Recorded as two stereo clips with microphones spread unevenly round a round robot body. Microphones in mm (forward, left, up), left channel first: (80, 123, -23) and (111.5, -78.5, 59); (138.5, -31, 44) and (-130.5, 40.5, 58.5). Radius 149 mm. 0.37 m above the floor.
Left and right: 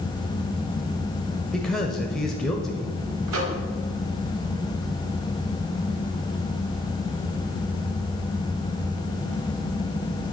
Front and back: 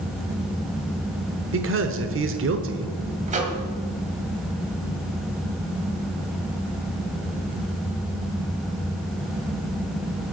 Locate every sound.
1.5 s a man speaking: 160° left, 1.0 m
3.3 s a microwave: 130° right, 1.8 m